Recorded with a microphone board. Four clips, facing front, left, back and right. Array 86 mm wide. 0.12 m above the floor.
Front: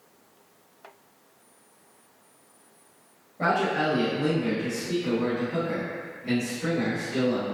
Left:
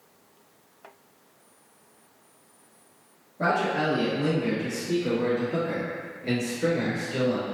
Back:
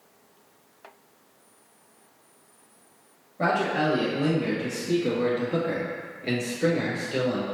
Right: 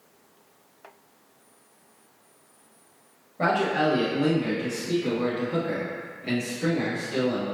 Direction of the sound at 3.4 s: 100° right.